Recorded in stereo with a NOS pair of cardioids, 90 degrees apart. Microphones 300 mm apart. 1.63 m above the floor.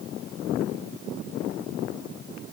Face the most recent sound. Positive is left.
No sound to turn to.